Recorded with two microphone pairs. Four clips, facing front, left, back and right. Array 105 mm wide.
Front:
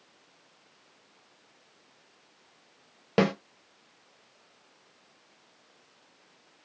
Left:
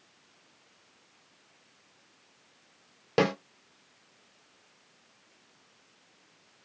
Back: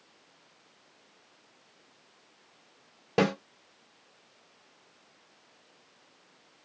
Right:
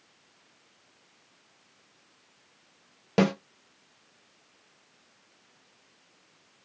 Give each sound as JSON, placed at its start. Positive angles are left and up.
{"t": 3.2, "sound": "a snare drum", "azimuth_deg": 15, "distance_m": 1.5}